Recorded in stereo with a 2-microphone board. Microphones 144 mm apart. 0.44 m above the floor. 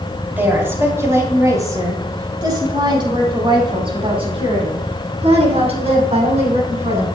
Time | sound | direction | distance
0.4 | a woman speaking | 15° right (ahead or behind) | 4 m